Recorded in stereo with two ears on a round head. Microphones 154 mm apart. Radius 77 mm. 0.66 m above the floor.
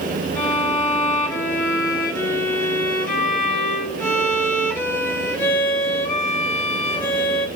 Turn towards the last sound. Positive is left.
turn(degrees=15)  # may be behind; listen again after turning